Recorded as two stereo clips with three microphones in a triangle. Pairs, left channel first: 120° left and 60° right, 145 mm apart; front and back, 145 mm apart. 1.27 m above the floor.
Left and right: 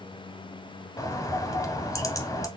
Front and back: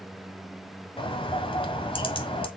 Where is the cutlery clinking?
No cutlery clinking in this recording.